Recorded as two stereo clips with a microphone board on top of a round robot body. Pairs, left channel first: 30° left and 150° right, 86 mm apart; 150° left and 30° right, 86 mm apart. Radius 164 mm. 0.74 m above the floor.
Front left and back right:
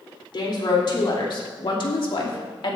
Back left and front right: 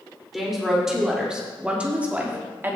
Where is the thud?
I don't hear a thud.